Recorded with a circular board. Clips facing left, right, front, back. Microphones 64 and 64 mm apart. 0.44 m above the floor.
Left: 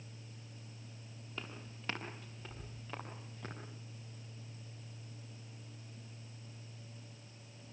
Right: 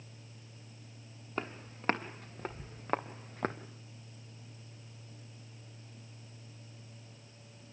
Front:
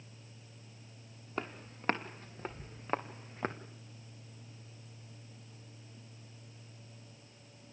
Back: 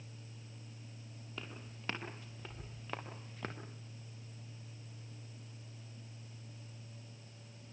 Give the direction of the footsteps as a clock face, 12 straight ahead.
2 o'clock.